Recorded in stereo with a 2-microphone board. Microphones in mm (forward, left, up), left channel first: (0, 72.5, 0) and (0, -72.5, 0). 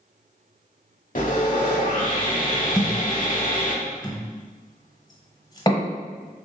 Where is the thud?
30° left (ahead or behind), 0.9 m.